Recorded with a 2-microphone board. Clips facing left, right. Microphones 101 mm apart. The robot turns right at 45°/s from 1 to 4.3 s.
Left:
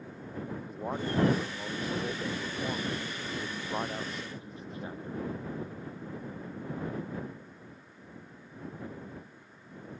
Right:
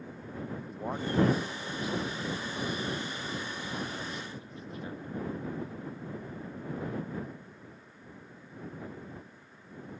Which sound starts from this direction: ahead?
A man speaking, at 0.6 s.